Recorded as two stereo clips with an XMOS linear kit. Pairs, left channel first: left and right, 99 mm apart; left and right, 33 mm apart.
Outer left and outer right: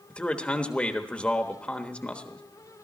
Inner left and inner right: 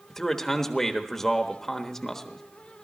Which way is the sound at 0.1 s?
10° left (ahead or behind).